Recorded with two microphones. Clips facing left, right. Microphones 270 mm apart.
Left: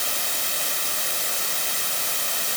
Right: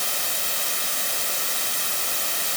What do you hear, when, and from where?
Only background noise.